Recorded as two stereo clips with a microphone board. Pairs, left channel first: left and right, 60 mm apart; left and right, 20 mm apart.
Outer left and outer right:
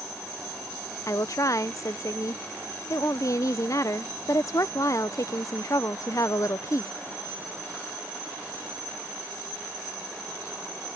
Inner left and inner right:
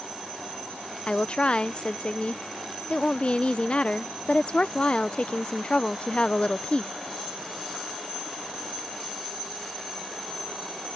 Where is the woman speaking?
55° left (ahead or behind).